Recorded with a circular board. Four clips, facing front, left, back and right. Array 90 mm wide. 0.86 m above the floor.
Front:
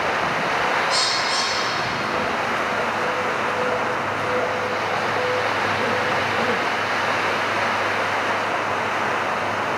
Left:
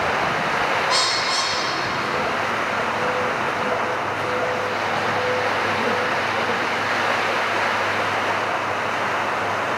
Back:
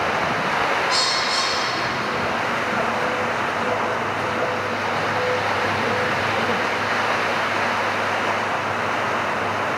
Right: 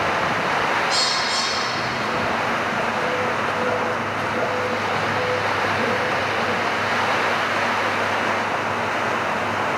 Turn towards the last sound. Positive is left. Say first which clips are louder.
# left 1 dB, even
turn(degrees=95)